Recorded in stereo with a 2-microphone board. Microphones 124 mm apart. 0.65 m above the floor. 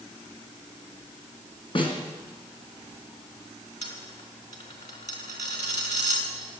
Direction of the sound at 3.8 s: 75° left (ahead or behind).